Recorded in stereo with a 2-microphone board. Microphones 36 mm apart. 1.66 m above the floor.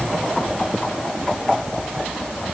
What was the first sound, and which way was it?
Only background noise.